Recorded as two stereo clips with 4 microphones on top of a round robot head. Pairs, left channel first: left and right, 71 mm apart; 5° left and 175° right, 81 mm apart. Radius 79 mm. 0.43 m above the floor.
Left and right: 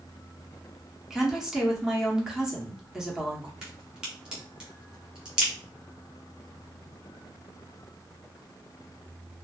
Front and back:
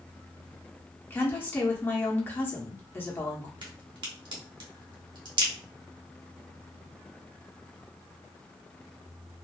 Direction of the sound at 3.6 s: 170° right.